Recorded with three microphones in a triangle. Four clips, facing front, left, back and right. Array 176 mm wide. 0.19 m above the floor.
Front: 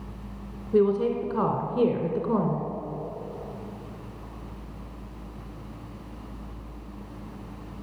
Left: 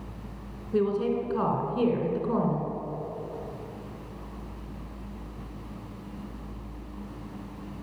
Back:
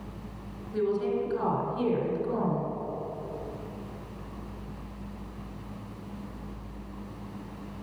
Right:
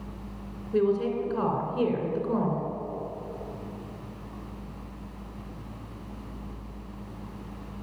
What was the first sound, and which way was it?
A woman speaking, straight ahead.